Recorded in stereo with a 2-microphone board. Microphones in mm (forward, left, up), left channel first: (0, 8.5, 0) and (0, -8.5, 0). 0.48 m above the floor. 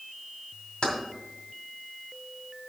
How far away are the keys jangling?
About 2.0 m.